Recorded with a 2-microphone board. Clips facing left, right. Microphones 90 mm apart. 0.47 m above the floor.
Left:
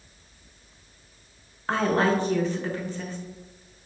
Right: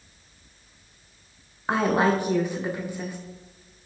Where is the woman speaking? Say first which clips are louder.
Right 1 dB; 10° right (ahead or behind), 0.7 m.